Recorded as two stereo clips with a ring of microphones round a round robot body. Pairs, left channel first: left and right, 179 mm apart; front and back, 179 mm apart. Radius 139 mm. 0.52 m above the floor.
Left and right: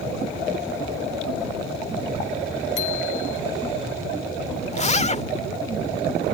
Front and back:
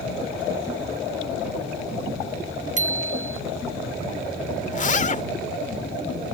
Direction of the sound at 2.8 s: 135° left.